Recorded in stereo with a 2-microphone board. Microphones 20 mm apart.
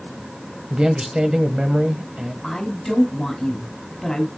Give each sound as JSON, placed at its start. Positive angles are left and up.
{"t": 0.7, "sound": "a man speaking", "side_deg": -45, "distance_m": 1.1}
{"t": 2.4, "sound": "a woman speaking", "side_deg": 15, "distance_m": 5.5}